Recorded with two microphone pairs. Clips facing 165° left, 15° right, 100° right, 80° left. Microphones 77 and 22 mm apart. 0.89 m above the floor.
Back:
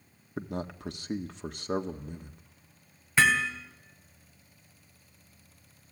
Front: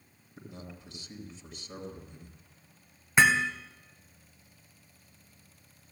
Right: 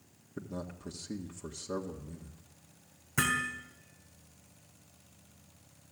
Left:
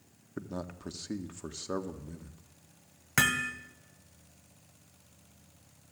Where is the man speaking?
140° left, 1.7 m.